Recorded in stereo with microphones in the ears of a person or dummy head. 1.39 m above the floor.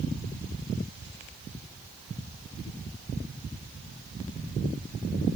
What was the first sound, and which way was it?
Only background noise.